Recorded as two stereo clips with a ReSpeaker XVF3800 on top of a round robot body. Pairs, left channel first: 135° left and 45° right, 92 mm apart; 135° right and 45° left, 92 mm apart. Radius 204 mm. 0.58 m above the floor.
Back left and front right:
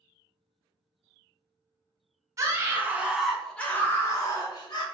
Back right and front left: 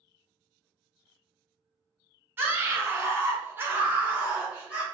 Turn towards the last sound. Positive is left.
turn(degrees=120)